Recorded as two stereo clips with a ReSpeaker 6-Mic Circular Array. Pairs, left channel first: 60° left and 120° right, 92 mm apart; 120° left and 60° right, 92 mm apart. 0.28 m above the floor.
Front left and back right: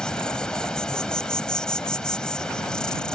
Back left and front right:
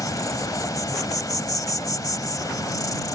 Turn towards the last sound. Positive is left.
turn(degrees=135)